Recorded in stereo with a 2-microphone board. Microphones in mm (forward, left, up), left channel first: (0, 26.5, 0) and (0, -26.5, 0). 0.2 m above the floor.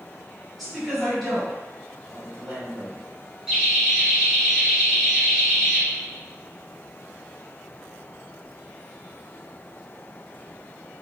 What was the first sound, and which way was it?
A woman speaking, centre (ahead or behind).